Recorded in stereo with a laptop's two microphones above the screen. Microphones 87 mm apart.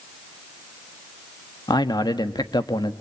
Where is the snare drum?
No snare drum in this recording.